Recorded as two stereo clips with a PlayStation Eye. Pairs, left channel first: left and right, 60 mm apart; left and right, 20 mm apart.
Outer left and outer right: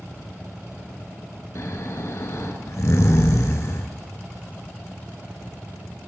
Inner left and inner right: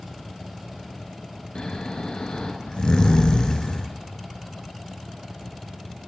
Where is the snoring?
50° left (ahead or behind), 0.7 m.